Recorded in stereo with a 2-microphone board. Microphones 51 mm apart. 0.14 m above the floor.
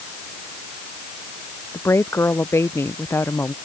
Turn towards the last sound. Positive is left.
turn(degrees=55)  # may be behind; listen again after turning